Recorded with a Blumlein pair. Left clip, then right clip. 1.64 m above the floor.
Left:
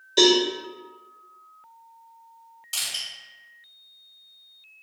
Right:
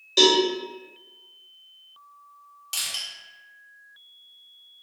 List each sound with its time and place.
0.2 s a cowbell: 5° right, 1.1 m
2.7 s crushing: 10° right, 1.4 m